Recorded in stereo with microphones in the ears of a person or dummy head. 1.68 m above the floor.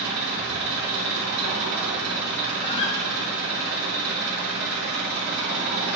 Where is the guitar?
35° left (ahead or behind), 1.4 m.